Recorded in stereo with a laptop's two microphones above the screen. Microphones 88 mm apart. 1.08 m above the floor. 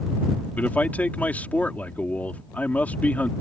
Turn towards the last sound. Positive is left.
turn(degrees=20)  # may be behind; listen again after turning